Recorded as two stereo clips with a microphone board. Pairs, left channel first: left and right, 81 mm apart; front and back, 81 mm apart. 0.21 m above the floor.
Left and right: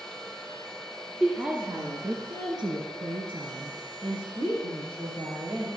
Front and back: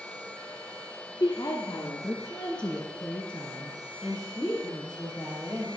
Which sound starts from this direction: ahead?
A woman speaking, at 1.2 s.